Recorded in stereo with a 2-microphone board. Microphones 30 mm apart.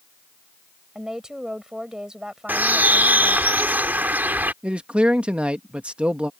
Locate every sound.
0.9 s a woman speaking: 20° right (ahead or behind)
2.5 s a bird: 85° right
4.6 s a man speaking: 35° right (ahead or behind)